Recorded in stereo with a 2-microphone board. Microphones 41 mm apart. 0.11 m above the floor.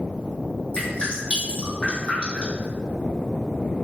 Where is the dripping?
30° left (ahead or behind), 1.8 m.